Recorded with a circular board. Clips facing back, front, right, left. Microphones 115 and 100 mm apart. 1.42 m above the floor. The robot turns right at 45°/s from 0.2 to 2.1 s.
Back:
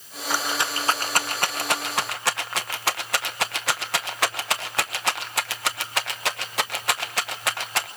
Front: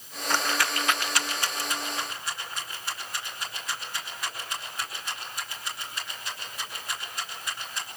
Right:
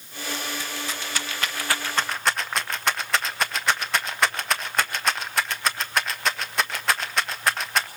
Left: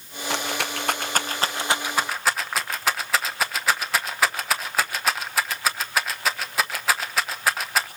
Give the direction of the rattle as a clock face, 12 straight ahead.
9 o'clock.